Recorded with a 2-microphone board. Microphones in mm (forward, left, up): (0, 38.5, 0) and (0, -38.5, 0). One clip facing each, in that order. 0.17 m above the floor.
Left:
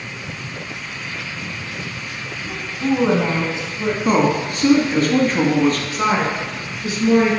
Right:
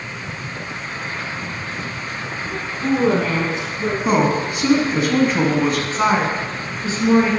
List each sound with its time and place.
2.4 s a woman speaking: 20° left (ahead or behind), 1.6 m
4.0 s a man speaking: 5° right (ahead or behind), 1.1 m
5.9 s a woman speaking: 30° right (ahead or behind), 1.7 m